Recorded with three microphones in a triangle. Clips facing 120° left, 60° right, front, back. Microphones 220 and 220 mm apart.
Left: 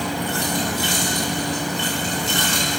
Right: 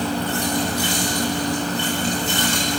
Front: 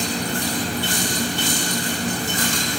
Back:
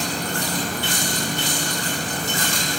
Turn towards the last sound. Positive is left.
turn(degrees=-5)